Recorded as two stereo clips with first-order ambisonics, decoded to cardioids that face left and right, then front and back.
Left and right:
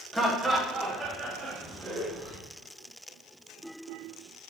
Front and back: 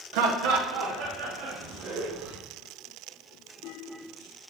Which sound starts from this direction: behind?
Laughter, at 0.1 s.